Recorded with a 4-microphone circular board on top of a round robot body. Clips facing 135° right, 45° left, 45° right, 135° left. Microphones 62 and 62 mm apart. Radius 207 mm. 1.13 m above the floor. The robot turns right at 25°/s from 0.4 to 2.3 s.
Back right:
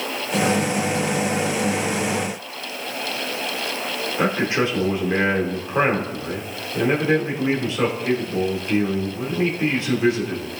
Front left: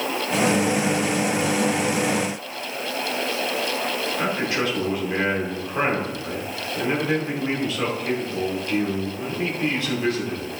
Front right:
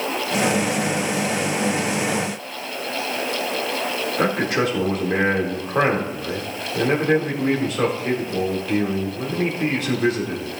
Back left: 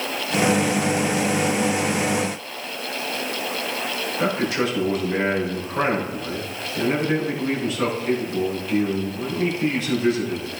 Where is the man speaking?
70° right, 2.5 m.